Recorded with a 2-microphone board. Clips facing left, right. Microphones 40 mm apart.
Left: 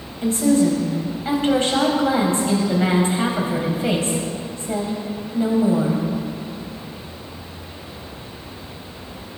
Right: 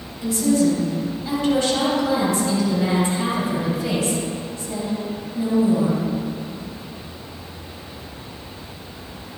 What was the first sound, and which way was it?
A woman speaking, 40° left (ahead or behind).